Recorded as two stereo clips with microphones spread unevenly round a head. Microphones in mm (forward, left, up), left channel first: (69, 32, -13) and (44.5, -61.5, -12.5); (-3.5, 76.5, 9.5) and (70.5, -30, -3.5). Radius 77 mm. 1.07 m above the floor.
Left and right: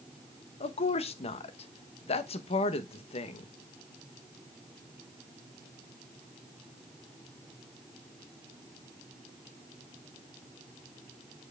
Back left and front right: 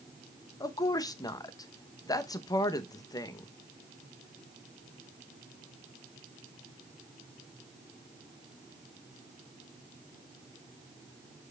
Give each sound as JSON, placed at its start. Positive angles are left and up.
{"t": 0.6, "sound": "a woman speaking", "azimuth_deg": 60, "distance_m": 0.9}